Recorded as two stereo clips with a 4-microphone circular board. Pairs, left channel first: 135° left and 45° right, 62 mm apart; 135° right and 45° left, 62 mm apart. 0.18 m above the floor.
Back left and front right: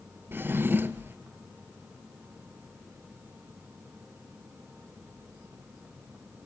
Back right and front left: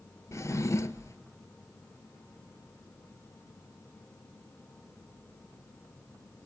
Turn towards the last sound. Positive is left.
turn(degrees=-100)